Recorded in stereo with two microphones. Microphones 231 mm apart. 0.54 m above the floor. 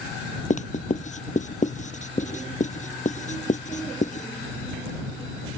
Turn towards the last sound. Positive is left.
turn(degrees=30)  # may be behind; listen again after turning